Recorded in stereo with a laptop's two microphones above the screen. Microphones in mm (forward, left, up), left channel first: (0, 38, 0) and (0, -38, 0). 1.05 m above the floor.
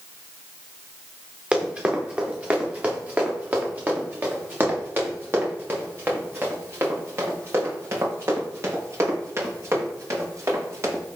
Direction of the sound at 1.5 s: 15° right (ahead or behind).